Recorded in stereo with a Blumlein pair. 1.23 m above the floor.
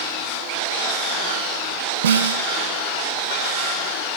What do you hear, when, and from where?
2.0 s a snare drum: 70° right, 3.5 m